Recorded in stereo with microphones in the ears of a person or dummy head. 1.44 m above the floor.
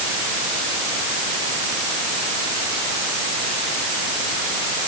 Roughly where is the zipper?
No zipper in this recording.